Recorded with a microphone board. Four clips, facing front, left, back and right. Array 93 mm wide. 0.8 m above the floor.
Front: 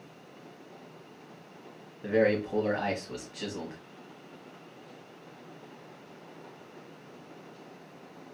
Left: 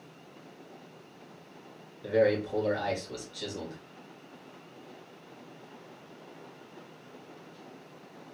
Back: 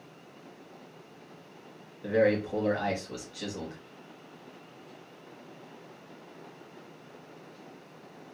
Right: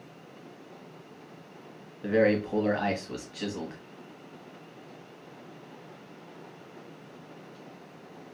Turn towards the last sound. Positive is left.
turn(degrees=-70)